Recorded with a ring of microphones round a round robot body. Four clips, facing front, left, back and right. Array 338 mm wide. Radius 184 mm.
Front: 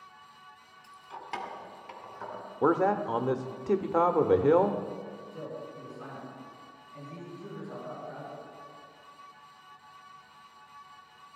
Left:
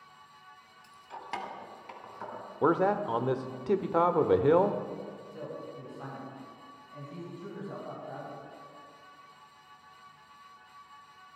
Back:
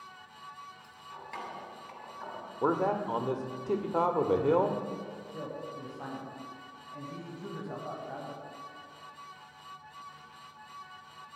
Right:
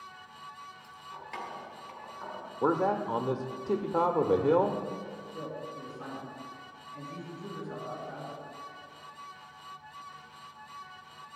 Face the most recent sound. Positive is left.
turn(degrees=155)